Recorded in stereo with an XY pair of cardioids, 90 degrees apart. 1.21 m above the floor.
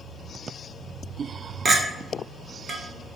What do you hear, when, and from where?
1.6 s a clink: 55° right, 0.7 m